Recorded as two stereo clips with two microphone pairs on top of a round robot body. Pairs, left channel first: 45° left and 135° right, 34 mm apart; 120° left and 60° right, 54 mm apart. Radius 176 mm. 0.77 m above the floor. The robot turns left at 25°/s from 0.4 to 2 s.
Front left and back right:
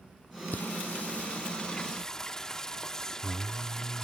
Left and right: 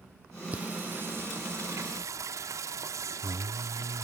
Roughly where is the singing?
Ahead.